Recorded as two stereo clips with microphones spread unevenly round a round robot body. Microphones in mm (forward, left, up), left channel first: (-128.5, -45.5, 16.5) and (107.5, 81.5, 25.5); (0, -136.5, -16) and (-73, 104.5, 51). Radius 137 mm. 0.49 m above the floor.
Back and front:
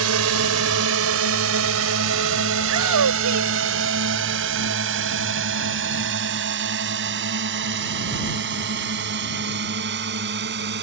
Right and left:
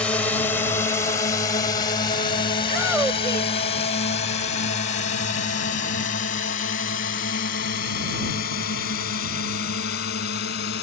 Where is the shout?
20° left.